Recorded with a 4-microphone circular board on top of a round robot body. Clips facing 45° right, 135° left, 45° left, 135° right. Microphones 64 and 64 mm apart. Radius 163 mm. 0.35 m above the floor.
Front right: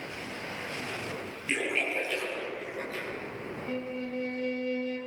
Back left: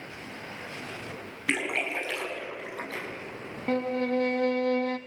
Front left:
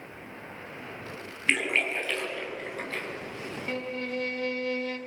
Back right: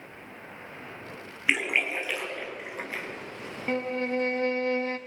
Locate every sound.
1.5 s a splash: 145° left, 5 m
3.7 s a violin: 165° left, 0.5 m